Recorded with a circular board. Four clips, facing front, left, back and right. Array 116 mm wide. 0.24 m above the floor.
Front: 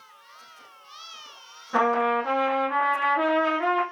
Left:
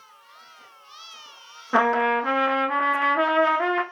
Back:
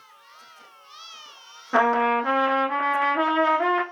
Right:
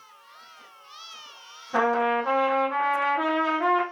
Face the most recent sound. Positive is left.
turn(degrees=120)